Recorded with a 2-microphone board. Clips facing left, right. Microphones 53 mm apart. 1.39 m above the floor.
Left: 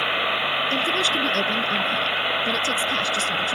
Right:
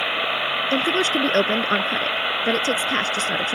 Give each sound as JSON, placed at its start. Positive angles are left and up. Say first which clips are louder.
{"t": 0.7, "sound": "a woman speaking", "louder": "right 2 dB", "side_deg": -40}